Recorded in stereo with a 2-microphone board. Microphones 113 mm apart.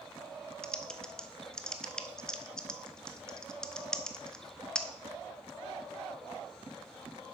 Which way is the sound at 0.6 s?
5° left (ahead or behind).